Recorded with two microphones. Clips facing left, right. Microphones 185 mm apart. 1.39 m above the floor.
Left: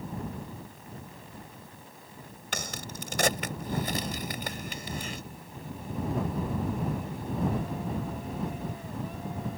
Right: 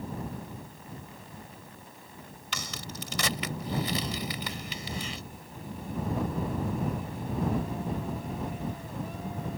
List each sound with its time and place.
2.5 s a crack: 50° left (ahead or behind)